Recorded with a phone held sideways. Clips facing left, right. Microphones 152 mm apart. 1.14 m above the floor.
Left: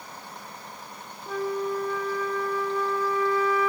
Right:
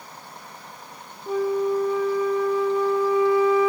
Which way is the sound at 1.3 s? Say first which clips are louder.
Right 6 dB; 20° right (ahead or behind).